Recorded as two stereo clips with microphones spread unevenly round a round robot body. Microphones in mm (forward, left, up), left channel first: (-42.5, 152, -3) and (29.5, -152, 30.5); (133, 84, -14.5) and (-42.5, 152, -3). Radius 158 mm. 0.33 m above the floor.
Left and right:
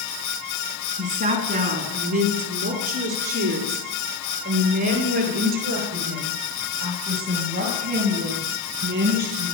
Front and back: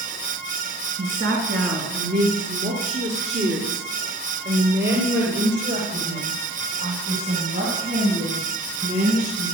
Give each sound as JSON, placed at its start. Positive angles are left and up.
{"t": 1.0, "sound": "a woman speaking", "azimuth_deg": -145, "distance_m": 3.5}